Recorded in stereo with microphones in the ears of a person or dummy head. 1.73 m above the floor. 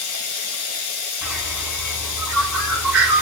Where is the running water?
75° left (ahead or behind), 2.5 m.